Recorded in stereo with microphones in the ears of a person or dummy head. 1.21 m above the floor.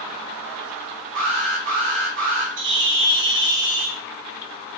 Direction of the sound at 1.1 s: 55° right (ahead or behind).